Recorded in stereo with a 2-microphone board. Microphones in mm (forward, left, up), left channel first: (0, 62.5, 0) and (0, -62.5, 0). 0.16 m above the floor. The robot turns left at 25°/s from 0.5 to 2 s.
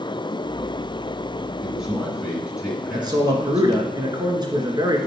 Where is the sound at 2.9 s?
35° right (ahead or behind), 1.8 m.